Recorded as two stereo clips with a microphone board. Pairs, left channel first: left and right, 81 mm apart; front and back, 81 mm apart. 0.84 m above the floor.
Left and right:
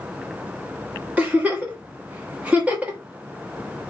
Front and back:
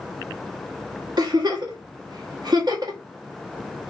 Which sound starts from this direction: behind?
A giggle, at 1.2 s.